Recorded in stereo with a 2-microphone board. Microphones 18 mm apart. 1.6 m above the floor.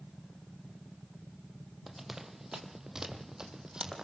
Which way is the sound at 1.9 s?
15° right (ahead or behind).